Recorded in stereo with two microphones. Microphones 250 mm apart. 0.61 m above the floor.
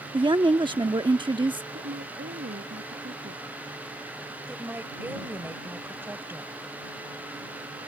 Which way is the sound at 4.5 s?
10° right (ahead or behind).